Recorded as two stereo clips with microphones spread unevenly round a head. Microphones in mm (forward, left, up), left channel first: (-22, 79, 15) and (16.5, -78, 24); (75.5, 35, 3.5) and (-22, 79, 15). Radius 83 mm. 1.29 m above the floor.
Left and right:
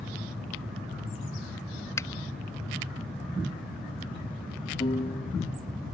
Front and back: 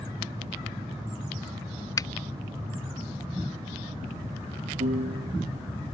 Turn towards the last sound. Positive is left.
turn(degrees=165)